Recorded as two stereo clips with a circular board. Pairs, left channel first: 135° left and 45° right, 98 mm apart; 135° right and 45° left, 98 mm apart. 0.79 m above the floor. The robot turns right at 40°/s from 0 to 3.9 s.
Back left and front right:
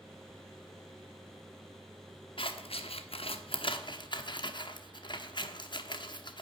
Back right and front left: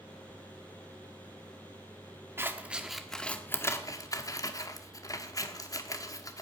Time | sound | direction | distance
2.4 | scissors | 110° left | 1.0 m